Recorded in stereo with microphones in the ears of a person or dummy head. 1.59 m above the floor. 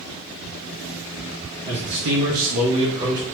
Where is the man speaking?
65° right (ahead or behind), 0.7 m; by 3.2 s 15° right (ahead or behind), 1.0 m.